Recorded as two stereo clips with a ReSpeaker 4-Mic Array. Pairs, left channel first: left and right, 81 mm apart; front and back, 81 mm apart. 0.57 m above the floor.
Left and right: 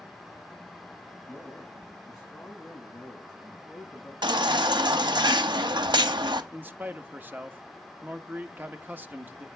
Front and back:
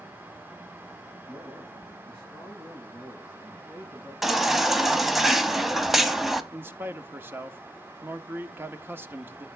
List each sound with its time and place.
1.3 s a man speaking: 175° left, 5 m
4.2 s a baby crying: 95° right, 1.1 m
6.5 s a man speaking: 140° right, 1.1 m